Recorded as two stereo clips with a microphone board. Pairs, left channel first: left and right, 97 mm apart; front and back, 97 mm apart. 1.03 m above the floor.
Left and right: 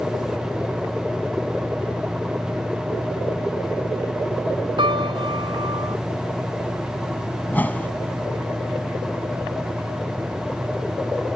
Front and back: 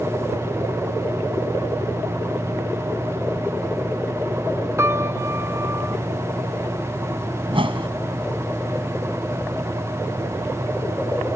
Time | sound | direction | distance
4.8 | a piano | 120° right | ?
7.5 | a whoosh | 160° left | ?